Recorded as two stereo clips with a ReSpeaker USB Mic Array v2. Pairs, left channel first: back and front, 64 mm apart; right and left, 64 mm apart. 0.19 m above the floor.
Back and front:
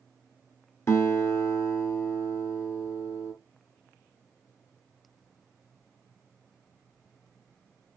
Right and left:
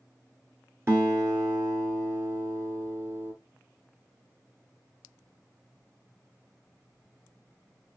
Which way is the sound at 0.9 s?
135° left.